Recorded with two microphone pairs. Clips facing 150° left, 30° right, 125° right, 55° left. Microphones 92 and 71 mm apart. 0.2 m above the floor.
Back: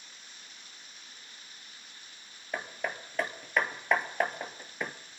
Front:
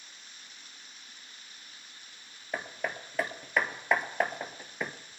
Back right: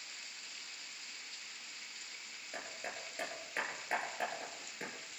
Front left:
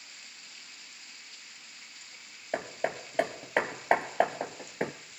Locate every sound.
2.5 s hammering: 60° left, 1.1 m